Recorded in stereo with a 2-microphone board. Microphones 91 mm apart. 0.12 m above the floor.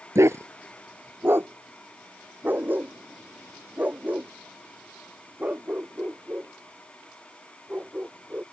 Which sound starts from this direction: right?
A dog barking, at 0.1 s.